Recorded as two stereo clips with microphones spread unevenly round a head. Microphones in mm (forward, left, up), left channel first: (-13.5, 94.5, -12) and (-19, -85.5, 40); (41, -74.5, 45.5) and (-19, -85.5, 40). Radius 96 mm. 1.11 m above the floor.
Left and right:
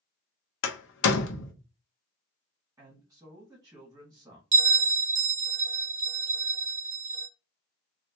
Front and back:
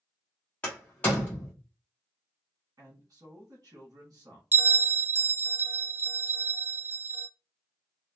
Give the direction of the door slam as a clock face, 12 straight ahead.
9 o'clock.